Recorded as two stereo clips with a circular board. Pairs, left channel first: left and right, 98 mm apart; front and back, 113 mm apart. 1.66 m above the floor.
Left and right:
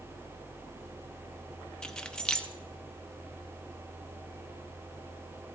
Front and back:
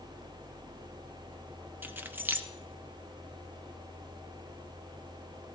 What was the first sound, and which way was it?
Keys jangling, 150° left.